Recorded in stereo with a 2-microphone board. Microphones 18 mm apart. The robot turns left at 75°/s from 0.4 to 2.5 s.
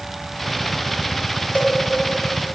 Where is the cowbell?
70° left (ahead or behind), 1.3 m; by 1.8 s 55° left (ahead or behind), 1.3 m.